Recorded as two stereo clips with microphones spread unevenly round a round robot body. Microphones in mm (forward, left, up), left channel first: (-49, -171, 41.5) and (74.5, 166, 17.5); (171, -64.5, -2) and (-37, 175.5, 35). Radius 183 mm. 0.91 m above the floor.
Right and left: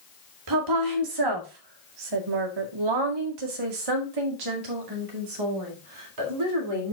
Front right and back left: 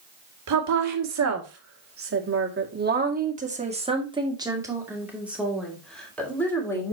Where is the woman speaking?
100° left, 2.5 m; by 6.9 s 30° left, 3.5 m.